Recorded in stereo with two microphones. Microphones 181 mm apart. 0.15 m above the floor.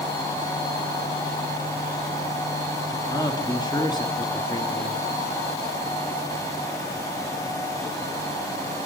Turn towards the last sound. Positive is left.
turn(degrees=20)  # may be behind; listen again after turning